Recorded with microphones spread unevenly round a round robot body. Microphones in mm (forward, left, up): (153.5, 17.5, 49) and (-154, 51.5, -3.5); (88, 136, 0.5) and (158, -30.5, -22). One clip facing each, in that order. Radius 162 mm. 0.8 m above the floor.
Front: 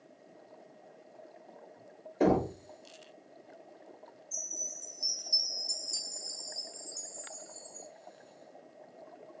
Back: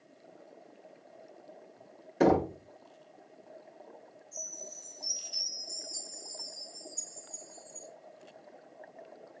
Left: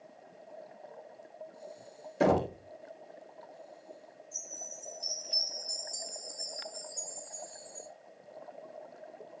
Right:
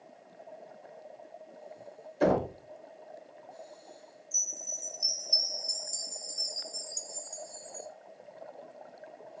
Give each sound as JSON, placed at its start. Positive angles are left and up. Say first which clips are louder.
{"t": 2.2, "sound": "knocking", "louder": "back 2 dB, even", "azimuth_deg": 135, "distance_m": 1.0}
{"t": 4.3, "sound": "a chime", "louder": "back 3 dB, even", "azimuth_deg": -40, "distance_m": 1.0}